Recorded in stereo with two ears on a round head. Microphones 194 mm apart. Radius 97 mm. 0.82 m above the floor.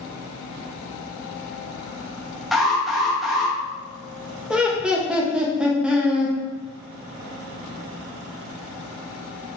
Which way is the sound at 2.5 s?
Centre (ahead or behind).